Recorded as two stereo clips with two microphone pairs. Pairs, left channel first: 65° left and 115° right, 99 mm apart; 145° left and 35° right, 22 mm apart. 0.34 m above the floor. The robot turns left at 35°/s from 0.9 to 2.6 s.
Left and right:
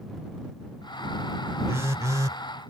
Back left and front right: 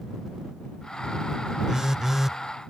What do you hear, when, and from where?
1.7 s a phone buzzing: 75° right; by 2.4 s 100° right